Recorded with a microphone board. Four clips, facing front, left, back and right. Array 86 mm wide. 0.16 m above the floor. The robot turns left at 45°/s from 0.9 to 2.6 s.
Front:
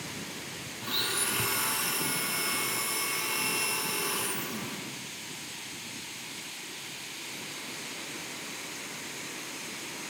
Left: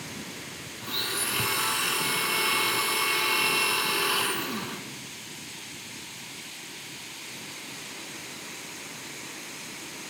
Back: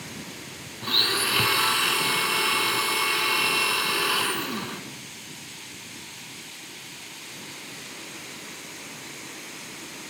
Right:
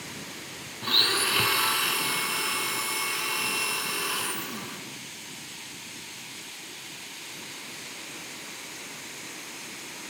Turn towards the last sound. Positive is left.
turn(degrees=155)